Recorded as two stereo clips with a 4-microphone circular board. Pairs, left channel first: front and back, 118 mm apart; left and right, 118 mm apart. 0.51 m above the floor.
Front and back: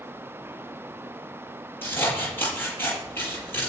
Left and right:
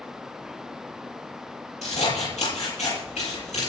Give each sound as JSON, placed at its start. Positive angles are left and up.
{"t": 1.8, "sound": "scissors", "azimuth_deg": 70, "distance_m": 7.5}